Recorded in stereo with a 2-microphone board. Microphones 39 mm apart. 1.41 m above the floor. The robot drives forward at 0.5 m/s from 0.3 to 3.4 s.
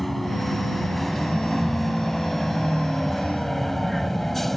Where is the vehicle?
5° left (ahead or behind).